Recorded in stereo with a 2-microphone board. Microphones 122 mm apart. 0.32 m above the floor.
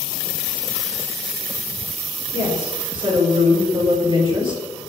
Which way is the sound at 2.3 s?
40° right (ahead or behind).